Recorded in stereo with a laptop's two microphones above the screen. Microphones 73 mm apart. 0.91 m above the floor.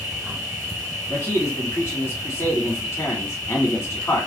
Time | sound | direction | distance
0.0 | an insect | 45° right (ahead or behind) | 1.5 m
1.1 | a man speaking | 40° left (ahead or behind) | 1.9 m